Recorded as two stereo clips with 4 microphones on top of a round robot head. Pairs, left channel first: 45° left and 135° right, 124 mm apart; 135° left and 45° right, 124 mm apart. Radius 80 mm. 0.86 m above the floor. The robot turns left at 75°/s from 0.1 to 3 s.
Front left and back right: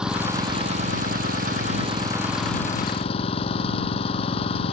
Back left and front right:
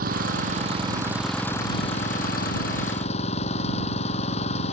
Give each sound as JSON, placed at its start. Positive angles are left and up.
{"t": 0.0, "sound": "an engine running", "azimuth_deg": -50}